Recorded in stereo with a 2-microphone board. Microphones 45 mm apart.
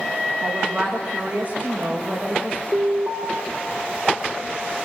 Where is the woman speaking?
30° right (ahead or behind), 7 m.